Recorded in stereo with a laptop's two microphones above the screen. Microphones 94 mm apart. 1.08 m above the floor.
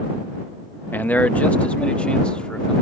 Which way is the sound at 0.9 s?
20° left (ahead or behind).